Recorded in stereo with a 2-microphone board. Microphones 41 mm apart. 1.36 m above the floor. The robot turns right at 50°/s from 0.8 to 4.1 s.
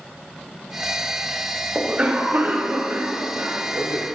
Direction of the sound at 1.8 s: 160° right.